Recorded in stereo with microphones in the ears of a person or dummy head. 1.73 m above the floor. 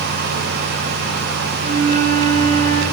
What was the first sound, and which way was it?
A flute, 30° right (ahead or behind).